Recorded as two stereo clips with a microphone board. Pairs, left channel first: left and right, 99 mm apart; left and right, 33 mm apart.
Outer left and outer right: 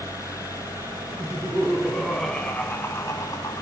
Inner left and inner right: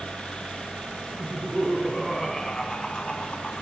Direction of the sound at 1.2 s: 10° right (ahead or behind).